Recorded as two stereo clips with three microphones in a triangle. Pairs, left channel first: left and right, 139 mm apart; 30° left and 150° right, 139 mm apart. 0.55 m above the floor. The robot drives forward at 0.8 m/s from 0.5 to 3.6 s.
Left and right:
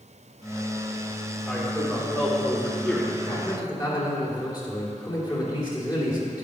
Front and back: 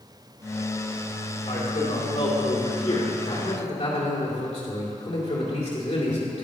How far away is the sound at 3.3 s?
About 2.5 m.